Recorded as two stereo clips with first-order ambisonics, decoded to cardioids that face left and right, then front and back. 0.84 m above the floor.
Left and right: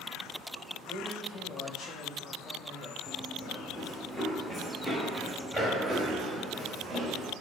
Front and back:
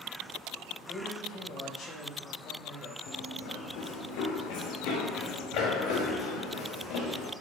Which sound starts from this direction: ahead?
Running footsteps, at 3.1 s.